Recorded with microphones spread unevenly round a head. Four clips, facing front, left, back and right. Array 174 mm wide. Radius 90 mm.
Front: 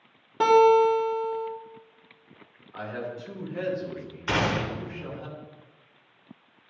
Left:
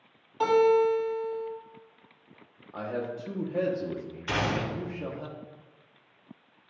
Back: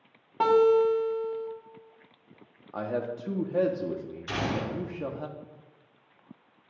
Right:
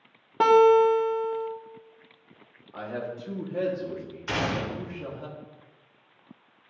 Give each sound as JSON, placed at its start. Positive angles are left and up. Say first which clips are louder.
{"t": 0.4, "sound": "a guitar", "louder": "right 5 dB, front 3 dB", "azimuth_deg": -80, "distance_m": 1.6}
{"t": 2.7, "sound": "a man speaking", "louder": "left 1 dB, back 3 dB", "azimuth_deg": 175, "distance_m": 1.2}
{"t": 4.3, "sound": "a gunshot", "louder": "even, front 4 dB", "azimuth_deg": 0, "distance_m": 1.3}